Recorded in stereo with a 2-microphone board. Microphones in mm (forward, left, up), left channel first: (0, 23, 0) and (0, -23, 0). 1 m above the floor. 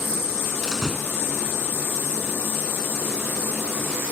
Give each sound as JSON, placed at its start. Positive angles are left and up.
{"t": 0.6, "sound": "a door slam", "side_deg": -5}